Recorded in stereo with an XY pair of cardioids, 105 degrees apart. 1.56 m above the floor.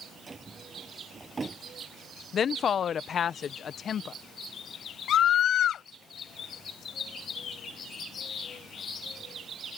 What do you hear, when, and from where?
0.3 s a drawer: 25° right
2.3 s a woman speaking: 50° left
5.1 s a scream: 65° left